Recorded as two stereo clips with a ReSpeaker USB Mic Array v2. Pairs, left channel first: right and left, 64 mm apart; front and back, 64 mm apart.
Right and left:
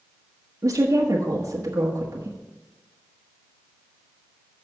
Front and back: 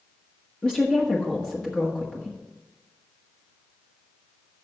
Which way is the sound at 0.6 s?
75° left.